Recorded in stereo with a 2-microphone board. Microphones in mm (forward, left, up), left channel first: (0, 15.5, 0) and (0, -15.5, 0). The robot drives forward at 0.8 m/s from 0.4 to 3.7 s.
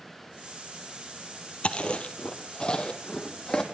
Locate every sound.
1.6 s chewing: 40° left (ahead or behind), 1.9 m; by 3.6 s 25° left (ahead or behind), 3 m